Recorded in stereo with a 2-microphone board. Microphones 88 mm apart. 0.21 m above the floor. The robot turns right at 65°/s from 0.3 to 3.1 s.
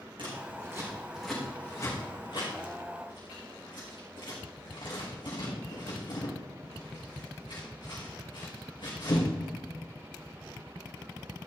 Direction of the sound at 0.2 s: 60° right (ahead or behind).